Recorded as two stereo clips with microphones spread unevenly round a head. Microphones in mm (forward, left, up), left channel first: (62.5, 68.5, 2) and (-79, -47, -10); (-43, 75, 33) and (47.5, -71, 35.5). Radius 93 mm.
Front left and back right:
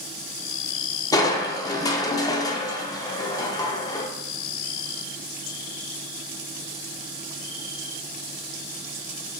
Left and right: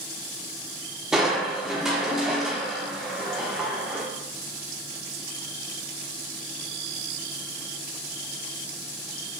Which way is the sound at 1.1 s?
25° left.